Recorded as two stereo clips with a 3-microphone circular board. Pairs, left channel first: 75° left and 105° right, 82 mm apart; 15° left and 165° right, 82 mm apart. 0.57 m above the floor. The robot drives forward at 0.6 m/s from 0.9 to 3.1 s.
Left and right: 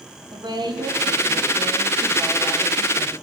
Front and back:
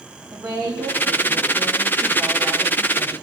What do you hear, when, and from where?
0.3 s a woman speaking: 125° right, 3.5 m; by 3.1 s 135° right, 4.5 m